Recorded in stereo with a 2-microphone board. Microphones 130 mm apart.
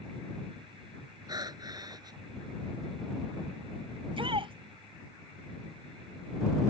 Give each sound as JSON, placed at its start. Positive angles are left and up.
{"t": 1.3, "sound": "breathing", "side_deg": -30}
{"t": 4.0, "sound": "a shout", "side_deg": -45}